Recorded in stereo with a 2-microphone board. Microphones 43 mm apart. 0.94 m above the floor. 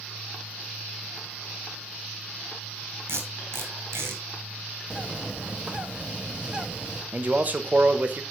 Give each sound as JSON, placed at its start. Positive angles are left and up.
{"t": 3.1, "sound": "tape being pulled", "side_deg": -75, "distance_m": 2.0}
{"t": 4.9, "sound": "a bird", "side_deg": -20, "distance_m": 0.6}
{"t": 7.1, "sound": "a man speaking", "side_deg": -40, "distance_m": 0.7}